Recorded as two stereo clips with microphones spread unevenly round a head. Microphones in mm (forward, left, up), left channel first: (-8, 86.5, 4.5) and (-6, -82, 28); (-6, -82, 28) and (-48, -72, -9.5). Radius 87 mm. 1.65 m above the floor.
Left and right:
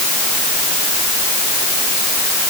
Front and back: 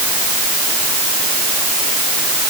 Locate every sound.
Only background noise.